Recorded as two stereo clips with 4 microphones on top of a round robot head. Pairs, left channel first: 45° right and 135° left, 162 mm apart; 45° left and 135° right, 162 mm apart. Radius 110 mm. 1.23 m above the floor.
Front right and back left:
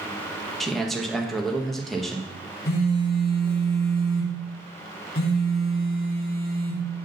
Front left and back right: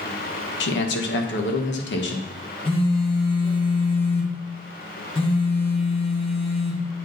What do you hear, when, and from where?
0.6 s a man speaking: 45° left, 1.3 m
2.6 s a phone buzzing: 15° right, 1.8 m